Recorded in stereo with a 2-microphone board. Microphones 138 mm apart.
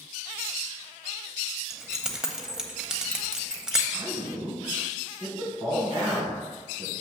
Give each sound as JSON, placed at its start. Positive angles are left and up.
{"t": 1.7, "sound": "keys jangling", "side_deg": -5, "distance_m": 0.7}
{"t": 3.9, "sound": "a man speaking", "side_deg": -30, "distance_m": 2.0}